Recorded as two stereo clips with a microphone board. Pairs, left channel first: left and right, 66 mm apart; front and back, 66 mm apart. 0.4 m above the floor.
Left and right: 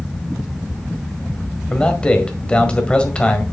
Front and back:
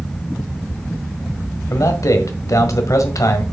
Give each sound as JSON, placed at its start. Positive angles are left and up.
{"t": 1.7, "sound": "a man speaking", "azimuth_deg": 20, "distance_m": 1.5}